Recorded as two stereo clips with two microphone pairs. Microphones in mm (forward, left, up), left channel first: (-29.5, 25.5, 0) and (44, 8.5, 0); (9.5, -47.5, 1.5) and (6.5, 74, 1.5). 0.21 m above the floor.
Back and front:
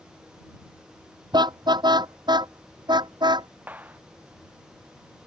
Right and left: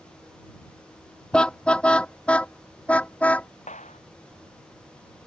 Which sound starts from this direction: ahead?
A car horn, at 1.3 s.